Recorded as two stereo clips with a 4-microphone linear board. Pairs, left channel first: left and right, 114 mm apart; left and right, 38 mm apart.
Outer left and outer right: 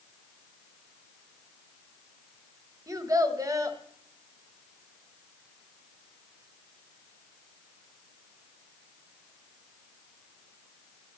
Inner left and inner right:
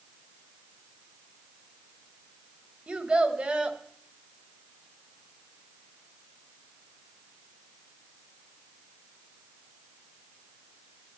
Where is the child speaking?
30° right (ahead or behind), 1.6 m.